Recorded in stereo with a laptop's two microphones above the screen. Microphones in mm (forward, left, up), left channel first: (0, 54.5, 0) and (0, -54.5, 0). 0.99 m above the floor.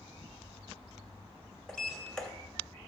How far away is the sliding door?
About 1.8 m.